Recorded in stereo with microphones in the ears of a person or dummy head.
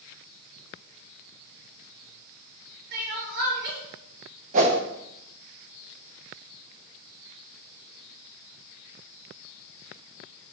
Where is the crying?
55° right (ahead or behind), 2.5 m.